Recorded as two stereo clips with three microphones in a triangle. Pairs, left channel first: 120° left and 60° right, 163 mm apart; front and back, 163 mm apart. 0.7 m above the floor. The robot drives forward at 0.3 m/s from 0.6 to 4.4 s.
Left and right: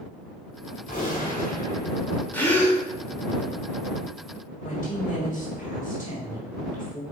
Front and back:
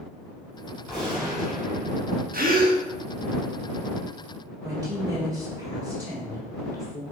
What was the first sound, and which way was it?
A gunshot, 90° left.